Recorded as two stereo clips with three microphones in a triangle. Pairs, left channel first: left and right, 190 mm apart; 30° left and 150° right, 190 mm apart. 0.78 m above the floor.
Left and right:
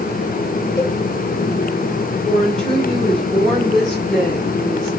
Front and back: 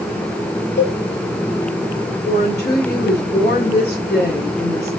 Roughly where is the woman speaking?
Ahead.